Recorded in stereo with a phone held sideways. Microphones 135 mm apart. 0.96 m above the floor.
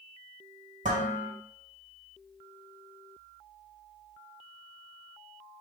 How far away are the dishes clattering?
About 3 m.